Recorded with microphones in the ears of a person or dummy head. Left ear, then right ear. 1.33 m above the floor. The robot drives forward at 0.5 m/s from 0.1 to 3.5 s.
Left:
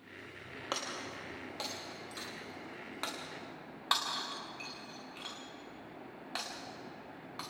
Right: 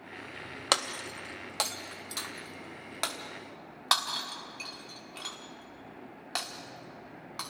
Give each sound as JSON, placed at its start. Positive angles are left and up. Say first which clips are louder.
{"t": 0.7, "sound": "breaking glass", "louder": "right 9 dB", "side_deg": -30, "distance_m": 0.8}